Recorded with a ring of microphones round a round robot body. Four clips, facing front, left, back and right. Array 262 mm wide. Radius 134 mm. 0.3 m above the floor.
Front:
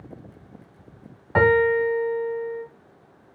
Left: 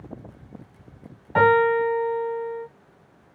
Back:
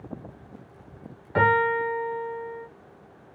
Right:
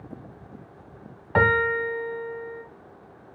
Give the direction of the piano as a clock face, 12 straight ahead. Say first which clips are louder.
Left 5 dB, front 4 dB; 2 o'clock.